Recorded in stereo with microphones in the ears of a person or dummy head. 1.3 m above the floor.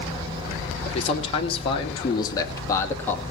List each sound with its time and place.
0.8 s a man speaking: 35° left (ahead or behind), 2.5 m; by 3.2 s 10° left (ahead or behind), 2 m